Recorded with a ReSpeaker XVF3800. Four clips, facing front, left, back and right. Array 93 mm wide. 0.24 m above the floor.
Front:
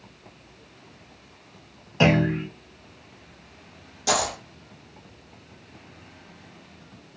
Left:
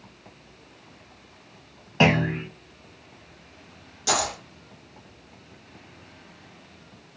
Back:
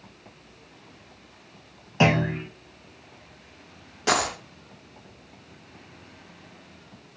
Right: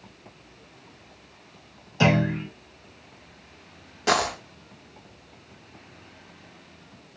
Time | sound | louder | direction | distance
2.0 | a clunk | left 1 dB, front 2 dB | 100° left | 1.4 m
4.1 | a dropped coin | right 3 dB, back 1 dB | 135° right | 0.6 m